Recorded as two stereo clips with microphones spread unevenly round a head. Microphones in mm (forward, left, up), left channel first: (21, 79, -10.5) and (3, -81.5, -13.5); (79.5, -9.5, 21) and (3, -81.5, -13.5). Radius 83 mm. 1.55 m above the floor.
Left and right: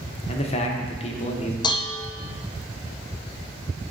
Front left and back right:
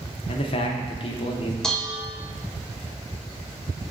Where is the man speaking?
35° left, 0.8 m.